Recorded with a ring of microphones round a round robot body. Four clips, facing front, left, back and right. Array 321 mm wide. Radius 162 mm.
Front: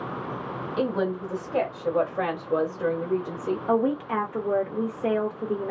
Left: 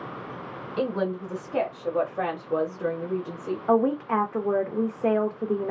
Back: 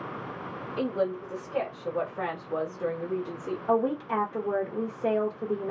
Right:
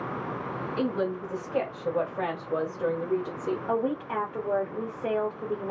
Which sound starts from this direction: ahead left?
A woman speaking, at 0.8 s.